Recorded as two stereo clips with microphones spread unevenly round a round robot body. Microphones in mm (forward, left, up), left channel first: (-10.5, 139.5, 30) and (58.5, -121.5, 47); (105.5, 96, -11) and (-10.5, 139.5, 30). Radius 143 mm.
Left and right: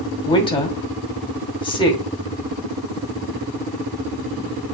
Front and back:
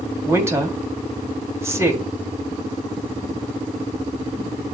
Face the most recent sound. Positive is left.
turn(degrees=75)